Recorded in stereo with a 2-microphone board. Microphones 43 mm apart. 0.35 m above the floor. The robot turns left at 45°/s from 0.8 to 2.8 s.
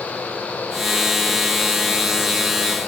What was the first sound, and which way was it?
Only background noise.